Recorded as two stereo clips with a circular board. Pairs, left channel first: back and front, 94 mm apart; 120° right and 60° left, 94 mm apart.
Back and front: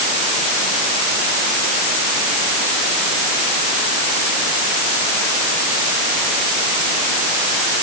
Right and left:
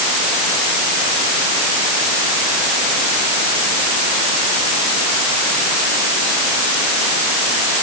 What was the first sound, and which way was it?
Only background noise.